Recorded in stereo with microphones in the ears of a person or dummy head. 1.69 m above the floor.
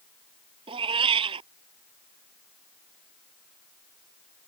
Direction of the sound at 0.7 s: 35° right (ahead or behind).